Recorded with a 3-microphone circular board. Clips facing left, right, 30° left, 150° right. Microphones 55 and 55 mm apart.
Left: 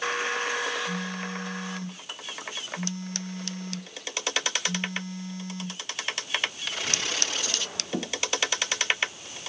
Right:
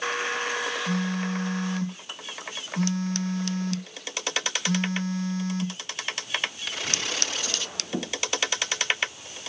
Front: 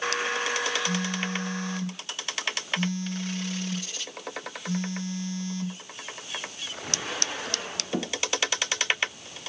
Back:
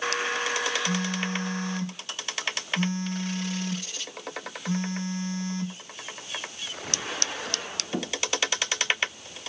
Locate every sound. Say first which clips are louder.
0.9 s a phone buzzing: right 4 dB, back 1 dB; 95° right, 2.5 m